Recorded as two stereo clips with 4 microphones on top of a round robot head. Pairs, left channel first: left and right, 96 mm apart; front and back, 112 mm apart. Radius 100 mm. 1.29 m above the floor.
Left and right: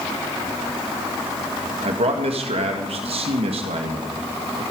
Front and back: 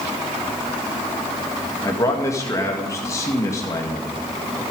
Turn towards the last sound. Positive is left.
turn(degrees=-70)